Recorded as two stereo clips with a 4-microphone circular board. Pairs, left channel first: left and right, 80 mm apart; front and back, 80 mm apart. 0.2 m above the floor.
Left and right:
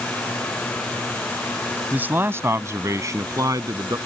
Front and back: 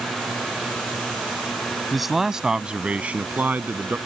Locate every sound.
1.9 s a man speaking: 90° right; by 4.0 s 120° right